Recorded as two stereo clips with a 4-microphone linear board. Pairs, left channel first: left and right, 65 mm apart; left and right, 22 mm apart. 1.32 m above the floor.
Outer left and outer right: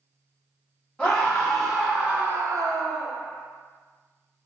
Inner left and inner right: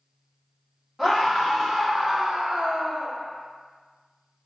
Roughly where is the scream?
Centre.